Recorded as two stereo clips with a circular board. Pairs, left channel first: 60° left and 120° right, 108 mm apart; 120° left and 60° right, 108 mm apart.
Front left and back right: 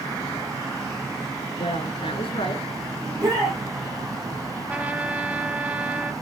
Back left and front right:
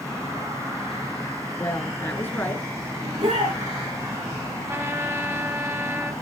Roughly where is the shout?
Right.